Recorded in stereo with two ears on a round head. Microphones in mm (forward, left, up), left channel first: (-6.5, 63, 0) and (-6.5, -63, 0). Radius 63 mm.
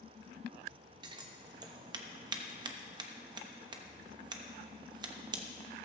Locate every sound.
1.0 s scissors: 30° right (ahead or behind), 1.0 m